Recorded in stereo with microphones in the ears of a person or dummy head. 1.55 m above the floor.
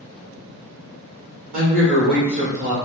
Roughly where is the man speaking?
Right.